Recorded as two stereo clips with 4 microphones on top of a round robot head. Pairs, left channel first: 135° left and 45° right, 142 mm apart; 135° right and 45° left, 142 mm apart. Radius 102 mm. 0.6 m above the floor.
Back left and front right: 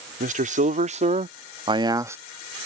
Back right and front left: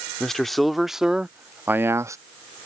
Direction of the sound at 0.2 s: 45° right.